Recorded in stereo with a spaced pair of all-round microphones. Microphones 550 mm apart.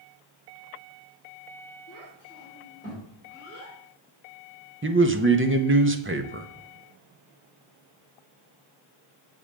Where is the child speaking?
35° left (ahead or behind), 4 m; by 3.8 s 20° left (ahead or behind), 4.5 m.